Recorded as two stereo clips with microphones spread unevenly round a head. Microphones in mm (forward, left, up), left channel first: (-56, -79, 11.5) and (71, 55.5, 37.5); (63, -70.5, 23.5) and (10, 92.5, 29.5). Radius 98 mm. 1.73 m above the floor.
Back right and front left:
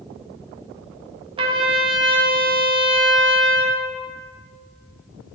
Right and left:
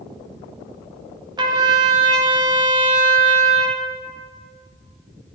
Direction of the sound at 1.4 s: 65° left.